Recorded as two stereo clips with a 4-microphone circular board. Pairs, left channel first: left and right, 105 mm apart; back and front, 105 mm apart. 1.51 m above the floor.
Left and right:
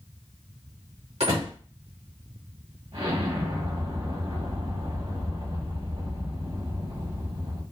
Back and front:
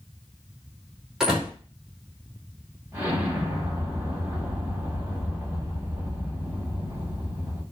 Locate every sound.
1.2 s a door slam: 85° right, 2.5 m
2.9 s an explosion: 65° right, 2.0 m